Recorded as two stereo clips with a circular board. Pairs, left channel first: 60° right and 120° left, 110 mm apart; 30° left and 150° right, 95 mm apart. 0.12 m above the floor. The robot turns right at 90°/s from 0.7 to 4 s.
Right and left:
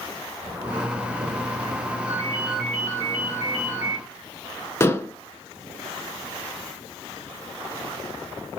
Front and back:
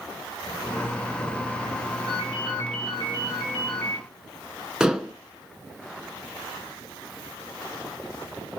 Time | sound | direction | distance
0.4 | a zipper | 70° left | 6.5 m
2.1 | a ringtone | 160° left | 9.5 m
4.8 | dishes clattering | 80° right | 0.9 m